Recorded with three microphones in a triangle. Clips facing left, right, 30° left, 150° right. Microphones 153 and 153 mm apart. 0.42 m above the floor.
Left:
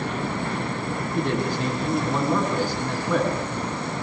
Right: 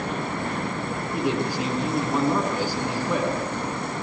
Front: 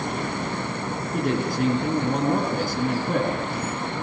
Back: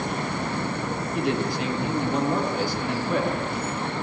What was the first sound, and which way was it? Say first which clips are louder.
A man speaking: even, front 2 dB; 10° right.